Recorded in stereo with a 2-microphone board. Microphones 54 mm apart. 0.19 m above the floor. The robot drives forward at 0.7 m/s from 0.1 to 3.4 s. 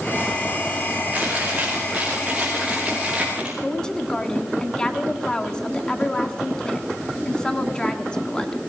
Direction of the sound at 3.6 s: 15° left (ahead or behind).